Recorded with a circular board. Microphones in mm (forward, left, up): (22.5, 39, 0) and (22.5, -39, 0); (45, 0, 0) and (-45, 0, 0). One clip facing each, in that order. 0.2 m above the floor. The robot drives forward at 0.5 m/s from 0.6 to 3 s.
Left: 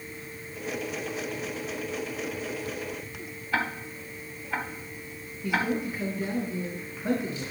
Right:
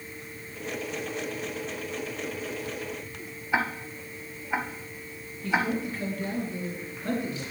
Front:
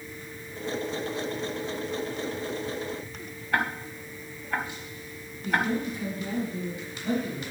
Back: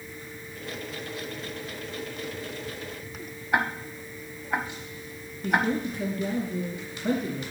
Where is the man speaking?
165° left, 3 m.